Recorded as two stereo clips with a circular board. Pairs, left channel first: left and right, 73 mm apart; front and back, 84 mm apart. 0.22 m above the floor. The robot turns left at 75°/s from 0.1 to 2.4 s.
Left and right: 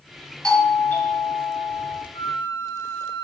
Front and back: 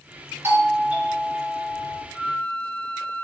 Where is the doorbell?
160° left, 2.5 m; by 2.0 s 40° left, 2.5 m.